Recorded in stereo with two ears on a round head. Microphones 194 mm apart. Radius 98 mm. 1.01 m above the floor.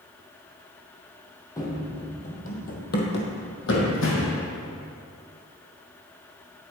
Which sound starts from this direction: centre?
Running footsteps, at 1.6 s.